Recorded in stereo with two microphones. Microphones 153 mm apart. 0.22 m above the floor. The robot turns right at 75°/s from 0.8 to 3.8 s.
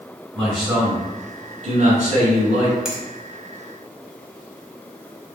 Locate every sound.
0.3 s a man speaking: 175° left, 1.9 m; by 2.8 s 40° right, 1.9 m
2.9 s a finger snap: 5° right (ahead or behind), 0.9 m; by 3.0 s centre (ahead or behind), 0.9 m